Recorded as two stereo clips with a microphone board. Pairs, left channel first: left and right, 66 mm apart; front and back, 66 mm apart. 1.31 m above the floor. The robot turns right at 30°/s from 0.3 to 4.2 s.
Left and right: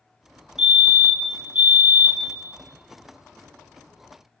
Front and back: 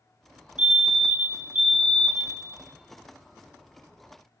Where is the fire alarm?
155° right, 0.9 m; by 2.4 s 105° right, 0.9 m.